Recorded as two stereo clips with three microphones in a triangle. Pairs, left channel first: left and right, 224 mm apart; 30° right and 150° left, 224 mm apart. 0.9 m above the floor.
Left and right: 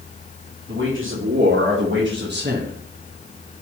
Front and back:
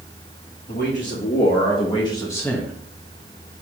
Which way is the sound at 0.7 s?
75° right.